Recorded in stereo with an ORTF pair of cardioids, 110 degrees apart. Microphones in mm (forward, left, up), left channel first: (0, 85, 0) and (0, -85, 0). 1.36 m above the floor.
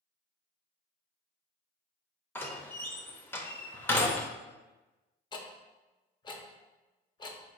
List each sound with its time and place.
2.4 s a door slam: 10° left, 0.6 m
5.3 s ticking: 25° left, 0.7 m